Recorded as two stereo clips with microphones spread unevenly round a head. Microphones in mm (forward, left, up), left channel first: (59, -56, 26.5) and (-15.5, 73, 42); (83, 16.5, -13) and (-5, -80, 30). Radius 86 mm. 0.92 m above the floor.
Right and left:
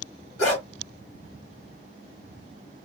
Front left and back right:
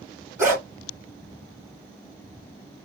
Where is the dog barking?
70° right, 3 m.